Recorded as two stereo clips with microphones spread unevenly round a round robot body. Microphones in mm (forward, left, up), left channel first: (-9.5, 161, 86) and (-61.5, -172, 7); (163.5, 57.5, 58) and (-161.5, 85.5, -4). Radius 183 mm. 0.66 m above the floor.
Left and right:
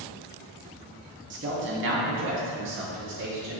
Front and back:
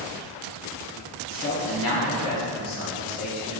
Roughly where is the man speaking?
Ahead right.